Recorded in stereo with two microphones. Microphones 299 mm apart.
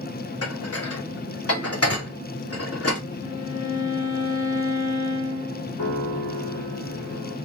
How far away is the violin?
About 2 m.